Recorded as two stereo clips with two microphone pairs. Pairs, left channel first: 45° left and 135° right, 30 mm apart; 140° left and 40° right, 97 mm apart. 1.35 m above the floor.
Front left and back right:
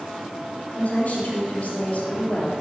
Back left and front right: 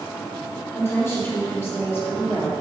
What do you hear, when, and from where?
0.7 s a woman speaking: 75° left, 2.5 m